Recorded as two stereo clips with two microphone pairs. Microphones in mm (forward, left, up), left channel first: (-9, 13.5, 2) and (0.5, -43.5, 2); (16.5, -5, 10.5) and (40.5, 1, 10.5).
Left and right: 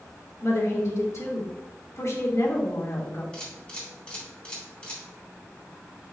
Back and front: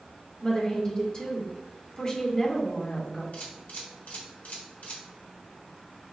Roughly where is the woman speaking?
Behind left.